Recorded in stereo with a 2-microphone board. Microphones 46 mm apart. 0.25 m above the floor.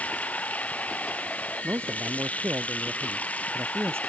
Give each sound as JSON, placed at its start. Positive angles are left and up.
{"t": 0.0, "sound": "running water", "side_deg": 30}
{"t": 1.6, "sound": "a man speaking", "side_deg": -55}